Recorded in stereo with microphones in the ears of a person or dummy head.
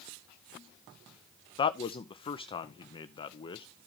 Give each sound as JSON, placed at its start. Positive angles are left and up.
{"t": 1.6, "sound": "a man speaking", "side_deg": 35, "distance_m": 0.7}